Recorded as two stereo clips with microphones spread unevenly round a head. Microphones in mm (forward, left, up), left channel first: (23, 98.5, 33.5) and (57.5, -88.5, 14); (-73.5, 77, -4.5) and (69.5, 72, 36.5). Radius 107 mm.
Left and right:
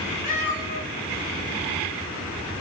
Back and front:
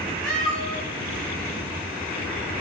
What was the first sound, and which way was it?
A cat meowing, 85° left.